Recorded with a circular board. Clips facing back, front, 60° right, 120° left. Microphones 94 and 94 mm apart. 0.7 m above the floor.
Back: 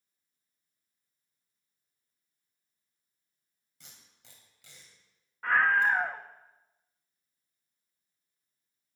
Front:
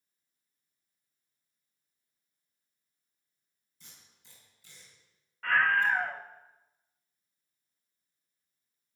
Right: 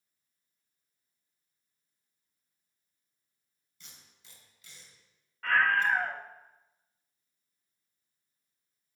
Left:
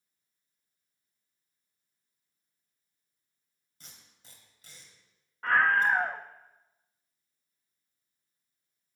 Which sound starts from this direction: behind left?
A scream, at 5.4 s.